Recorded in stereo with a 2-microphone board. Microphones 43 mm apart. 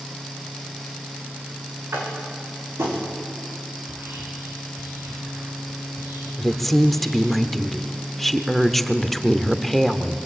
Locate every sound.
1.9 s tapping: 65° right (ahead or behind), 5.5 m
3.8 s whispering: 80° right, 8.5 m
6.4 s a woman speaking: 5° left (ahead or behind), 1.0 m